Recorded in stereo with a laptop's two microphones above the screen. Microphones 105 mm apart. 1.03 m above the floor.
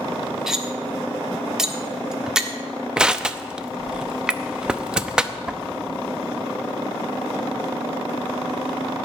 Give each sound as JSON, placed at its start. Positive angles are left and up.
{"t": 0.5, "sound": "cutlery clinking", "side_deg": -5, "distance_m": 1.4}
{"t": 3.0, "sound": "crushing", "side_deg": -5, "distance_m": 0.7}